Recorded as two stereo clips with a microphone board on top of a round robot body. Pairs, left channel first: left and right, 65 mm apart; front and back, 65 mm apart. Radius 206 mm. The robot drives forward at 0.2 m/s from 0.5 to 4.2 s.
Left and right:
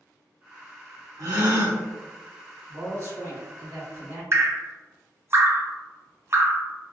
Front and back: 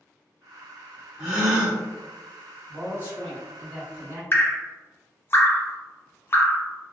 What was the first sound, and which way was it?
A gasp, 105° right.